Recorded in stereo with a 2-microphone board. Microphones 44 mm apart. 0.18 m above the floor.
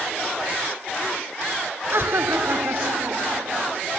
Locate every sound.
1.9 s laughter: 65° right (ahead or behind); by 3.8 s 60° right (ahead or behind)